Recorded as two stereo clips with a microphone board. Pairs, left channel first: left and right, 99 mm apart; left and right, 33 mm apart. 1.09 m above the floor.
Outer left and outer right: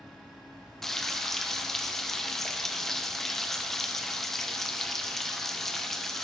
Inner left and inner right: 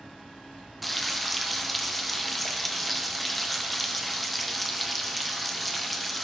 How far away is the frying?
About 0.9 m.